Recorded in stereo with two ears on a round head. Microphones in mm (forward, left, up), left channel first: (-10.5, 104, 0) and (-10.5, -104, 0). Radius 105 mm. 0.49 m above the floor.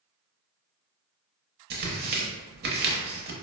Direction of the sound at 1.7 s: 45° right (ahead or behind).